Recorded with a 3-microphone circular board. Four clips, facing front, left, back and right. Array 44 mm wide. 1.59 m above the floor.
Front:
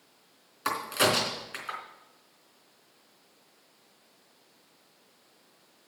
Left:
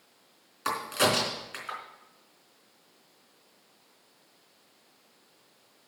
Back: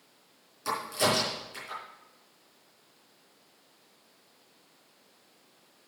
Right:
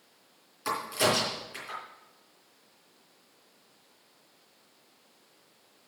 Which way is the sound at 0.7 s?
35° left.